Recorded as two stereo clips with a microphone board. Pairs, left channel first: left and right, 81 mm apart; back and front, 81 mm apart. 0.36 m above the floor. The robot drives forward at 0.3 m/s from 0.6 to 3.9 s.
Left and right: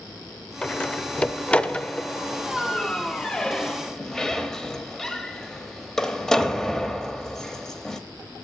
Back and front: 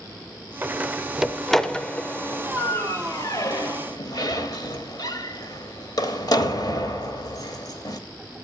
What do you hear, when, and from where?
0.6 s a door slam: 30° left, 0.6 m; by 8.0 s 170° left, 0.9 m